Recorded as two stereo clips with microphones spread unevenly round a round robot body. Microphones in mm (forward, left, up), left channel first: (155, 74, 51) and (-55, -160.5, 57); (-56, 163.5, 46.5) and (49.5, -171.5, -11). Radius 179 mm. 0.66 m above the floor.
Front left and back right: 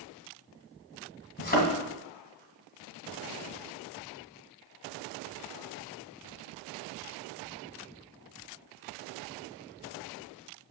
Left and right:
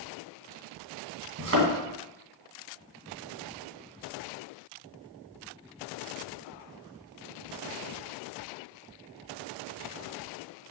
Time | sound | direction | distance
1.4 | a thud | 15° right | 2 m